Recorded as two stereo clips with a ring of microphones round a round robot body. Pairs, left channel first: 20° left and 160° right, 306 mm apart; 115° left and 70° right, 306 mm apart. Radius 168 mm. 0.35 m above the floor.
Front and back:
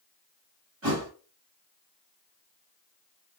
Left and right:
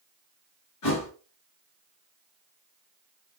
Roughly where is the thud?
Behind left.